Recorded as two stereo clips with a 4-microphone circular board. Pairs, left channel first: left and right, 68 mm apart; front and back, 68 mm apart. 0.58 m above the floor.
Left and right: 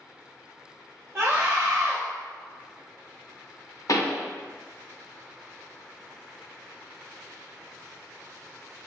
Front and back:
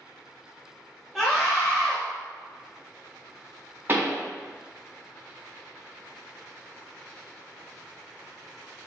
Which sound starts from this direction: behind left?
A pop, at 3.9 s.